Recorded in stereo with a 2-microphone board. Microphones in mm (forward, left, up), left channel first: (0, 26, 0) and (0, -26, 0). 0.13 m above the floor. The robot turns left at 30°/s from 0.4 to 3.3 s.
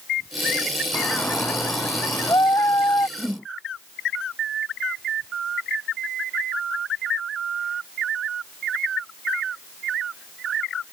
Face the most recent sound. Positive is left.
turn(degrees=25)  # may be behind; listen again after turning